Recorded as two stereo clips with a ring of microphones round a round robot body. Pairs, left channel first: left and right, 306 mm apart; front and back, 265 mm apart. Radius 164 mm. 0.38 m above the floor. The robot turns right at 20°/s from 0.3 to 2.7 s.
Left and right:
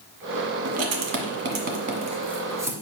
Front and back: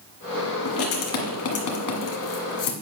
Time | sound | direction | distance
0.7 | writing | 50° right | 1.4 m